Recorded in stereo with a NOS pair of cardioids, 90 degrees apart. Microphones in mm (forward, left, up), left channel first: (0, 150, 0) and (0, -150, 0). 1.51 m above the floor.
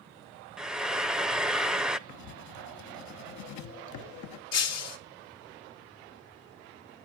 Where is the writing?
70° left, 1.1 m.